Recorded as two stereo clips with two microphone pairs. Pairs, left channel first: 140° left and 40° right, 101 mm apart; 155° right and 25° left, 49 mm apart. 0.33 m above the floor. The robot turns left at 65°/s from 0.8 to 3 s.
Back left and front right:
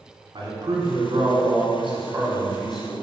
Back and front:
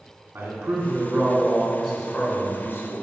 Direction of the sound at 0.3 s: Straight ahead.